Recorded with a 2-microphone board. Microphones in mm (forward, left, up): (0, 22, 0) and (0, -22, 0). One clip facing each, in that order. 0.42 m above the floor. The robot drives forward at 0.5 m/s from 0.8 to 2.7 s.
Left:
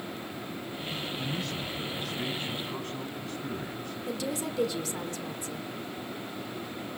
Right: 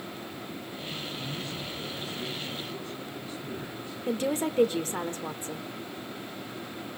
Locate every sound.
1.2 s a man speaking: 65° left (ahead or behind), 3.5 m; by 4.0 s 55° left (ahead or behind), 4 m
4.1 s a woman speaking: 35° right (ahead or behind), 1.0 m